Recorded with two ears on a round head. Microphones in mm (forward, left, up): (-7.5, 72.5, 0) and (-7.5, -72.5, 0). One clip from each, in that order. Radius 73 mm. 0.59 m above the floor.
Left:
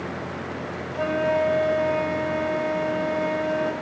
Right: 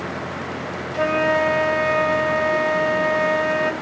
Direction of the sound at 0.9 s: 45° right (ahead or behind).